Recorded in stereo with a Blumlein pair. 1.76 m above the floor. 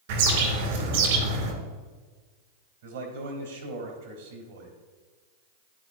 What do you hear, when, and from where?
0.1 s a bird: 55° right, 2.5 m
2.8 s a man speaking: 65° right, 2.5 m